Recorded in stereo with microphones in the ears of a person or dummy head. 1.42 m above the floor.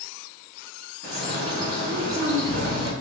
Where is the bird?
70° right (ahead or behind), 3 m.